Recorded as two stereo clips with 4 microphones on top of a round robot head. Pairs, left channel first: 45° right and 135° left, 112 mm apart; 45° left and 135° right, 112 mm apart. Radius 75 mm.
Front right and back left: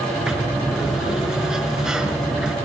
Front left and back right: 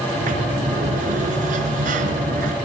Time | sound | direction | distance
0.1 | a sliding door | 140° right | 4.5 m